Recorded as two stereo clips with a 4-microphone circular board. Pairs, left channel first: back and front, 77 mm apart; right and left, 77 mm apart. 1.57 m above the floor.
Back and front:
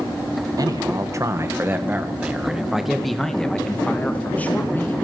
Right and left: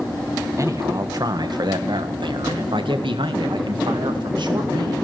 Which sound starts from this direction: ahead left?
A man speaking, at 0.6 s.